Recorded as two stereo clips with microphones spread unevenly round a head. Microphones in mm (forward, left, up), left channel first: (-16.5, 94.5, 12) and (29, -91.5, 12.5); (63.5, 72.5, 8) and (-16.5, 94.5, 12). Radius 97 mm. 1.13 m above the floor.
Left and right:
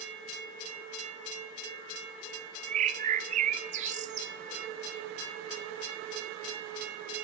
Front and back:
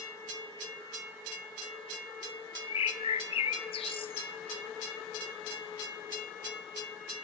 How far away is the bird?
About 0.5 m.